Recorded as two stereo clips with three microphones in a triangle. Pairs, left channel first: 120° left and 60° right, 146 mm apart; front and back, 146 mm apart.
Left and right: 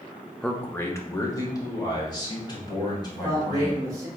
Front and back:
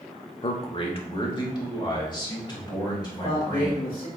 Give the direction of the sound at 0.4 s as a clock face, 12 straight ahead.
11 o'clock.